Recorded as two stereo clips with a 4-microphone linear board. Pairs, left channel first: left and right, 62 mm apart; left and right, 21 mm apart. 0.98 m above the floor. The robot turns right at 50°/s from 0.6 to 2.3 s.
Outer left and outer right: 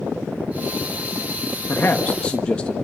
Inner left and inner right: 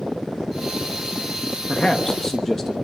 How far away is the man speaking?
About 1.4 m.